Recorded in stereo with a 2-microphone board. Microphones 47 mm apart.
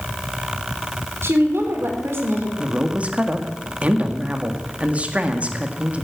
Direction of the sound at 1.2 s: 65° right (ahead or behind).